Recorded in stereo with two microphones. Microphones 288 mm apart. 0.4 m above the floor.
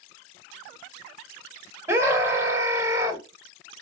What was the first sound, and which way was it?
A scream, 10° right (ahead or behind).